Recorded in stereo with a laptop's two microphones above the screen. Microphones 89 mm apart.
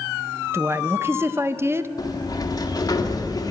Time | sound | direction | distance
0.5 | a woman speaking | 25° right (ahead or behind) | 0.5 m
2.0 | a sliding door | 40° left (ahead or behind) | 1.6 m